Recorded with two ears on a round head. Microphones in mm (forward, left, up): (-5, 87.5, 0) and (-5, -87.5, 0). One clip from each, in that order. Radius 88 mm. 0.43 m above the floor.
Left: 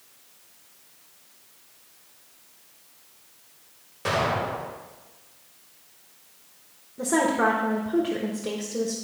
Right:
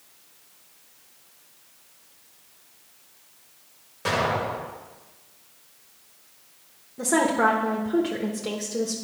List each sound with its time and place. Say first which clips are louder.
4.0 s an explosion: even; 5° right (ahead or behind), 1.8 m
7.0 s a woman speaking: right 1 dB; 15° right (ahead or behind), 1.0 m